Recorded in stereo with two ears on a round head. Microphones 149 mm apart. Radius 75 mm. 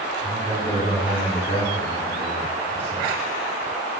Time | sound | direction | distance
0.2 | a man speaking | 55° left (ahead or behind) | 1.7 m